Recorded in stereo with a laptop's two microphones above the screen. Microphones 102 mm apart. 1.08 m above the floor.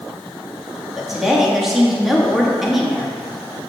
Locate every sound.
1.0 s a woman speaking: 5° right (ahead or behind), 1.4 m